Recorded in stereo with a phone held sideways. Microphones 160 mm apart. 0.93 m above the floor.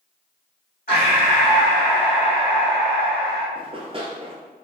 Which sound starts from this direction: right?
Running footsteps, at 3.5 s.